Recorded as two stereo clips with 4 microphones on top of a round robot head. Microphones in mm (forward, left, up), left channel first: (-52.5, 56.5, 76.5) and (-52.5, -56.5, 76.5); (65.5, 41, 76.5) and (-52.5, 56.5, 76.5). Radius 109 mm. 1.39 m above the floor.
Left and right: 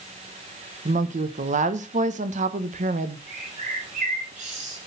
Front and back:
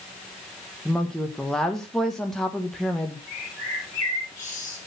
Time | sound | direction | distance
0.8 | a woman speaking | 95° right | 1.4 m
3.3 | a bird | 75° right | 9.5 m